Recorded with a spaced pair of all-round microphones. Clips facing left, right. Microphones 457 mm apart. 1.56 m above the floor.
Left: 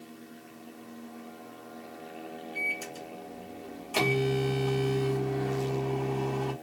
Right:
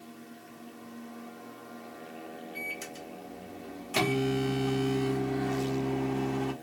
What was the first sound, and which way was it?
A microwave, 40° right (ahead or behind).